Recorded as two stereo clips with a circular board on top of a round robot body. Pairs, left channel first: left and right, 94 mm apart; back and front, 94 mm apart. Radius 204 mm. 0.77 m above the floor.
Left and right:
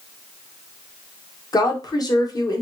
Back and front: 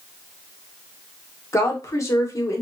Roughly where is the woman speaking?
Behind left.